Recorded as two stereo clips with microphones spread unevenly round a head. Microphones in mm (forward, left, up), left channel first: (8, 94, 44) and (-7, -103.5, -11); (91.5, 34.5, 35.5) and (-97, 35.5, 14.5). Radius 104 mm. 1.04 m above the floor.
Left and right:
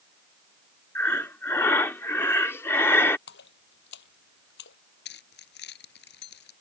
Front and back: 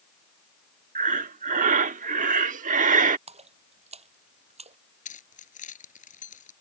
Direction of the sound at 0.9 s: 140° left.